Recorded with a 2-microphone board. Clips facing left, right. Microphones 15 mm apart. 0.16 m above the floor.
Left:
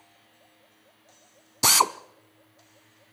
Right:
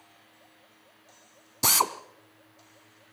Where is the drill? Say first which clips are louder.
Left 4 dB; 20° left (ahead or behind), 0.5 m.